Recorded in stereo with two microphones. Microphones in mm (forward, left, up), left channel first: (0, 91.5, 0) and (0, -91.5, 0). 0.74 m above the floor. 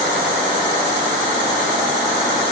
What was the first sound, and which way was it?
Only background noise.